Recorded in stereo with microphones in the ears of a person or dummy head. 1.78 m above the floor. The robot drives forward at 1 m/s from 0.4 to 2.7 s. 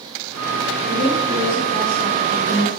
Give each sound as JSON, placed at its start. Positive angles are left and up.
{"t": 0.9, "sound": "a woman speaking", "side_deg": 25, "distance_m": 4.0}